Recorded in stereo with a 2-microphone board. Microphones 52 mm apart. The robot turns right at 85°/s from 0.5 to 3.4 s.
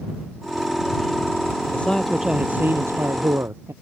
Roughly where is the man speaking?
Behind left.